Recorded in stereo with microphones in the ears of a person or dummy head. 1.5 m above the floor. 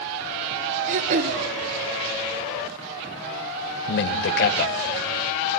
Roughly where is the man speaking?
Left.